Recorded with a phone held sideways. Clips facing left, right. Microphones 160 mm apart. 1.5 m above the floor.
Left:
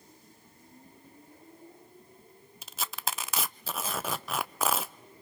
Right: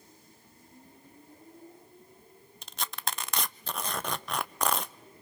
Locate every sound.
2.6 s tearing paper: 5° left (ahead or behind), 0.6 m